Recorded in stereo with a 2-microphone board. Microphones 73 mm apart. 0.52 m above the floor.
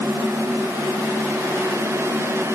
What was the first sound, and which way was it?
Only background noise.